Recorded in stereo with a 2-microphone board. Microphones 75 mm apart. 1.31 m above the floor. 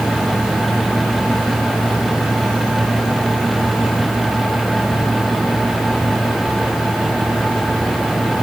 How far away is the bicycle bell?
No bicycle bell in this recording.